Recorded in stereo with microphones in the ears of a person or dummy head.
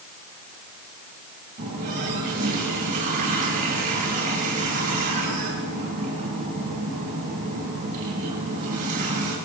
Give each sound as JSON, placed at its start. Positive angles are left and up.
{"t": 1.6, "sound": "a running tap", "side_deg": -45, "distance_m": 6.0}